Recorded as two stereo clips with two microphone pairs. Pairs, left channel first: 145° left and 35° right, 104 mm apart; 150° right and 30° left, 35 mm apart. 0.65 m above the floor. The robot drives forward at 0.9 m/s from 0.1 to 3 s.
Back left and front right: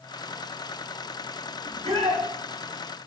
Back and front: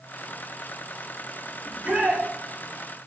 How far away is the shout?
About 7 m.